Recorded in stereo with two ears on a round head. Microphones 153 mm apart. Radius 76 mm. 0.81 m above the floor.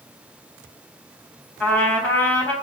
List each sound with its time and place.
1.6 s a trumpet: 10° left (ahead or behind), 4 m